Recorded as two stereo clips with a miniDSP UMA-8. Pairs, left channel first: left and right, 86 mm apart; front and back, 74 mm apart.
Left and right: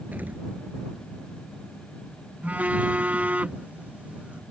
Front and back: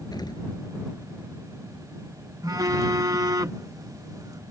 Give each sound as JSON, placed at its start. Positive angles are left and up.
{"t": 0.1, "sound": "an explosion", "azimuth_deg": -20}
{"t": 2.4, "sound": "a phone buzzing", "azimuth_deg": -160}